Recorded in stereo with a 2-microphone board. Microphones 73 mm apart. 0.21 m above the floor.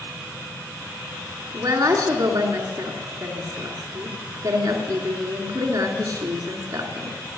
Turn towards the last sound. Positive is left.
turn(degrees=-55)  # may be behind; listen again after turning